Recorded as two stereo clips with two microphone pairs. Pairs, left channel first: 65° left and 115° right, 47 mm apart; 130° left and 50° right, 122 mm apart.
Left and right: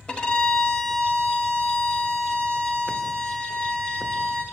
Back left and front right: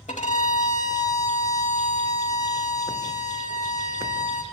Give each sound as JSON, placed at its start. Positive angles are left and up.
{"t": 0.1, "sound": "a violin", "azimuth_deg": 140, "distance_m": 0.7}